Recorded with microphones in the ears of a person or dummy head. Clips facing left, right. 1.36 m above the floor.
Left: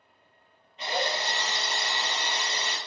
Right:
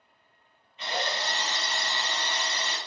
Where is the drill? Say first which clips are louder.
Left 2 dB; 35° left (ahead or behind), 1.5 m.